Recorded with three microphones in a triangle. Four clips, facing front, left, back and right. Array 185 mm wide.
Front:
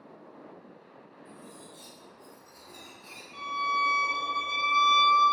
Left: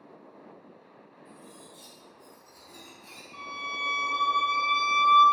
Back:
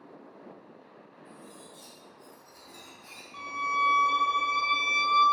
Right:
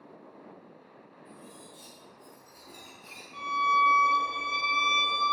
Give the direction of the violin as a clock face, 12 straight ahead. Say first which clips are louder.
Right 13 dB, front 1 dB; 9 o'clock.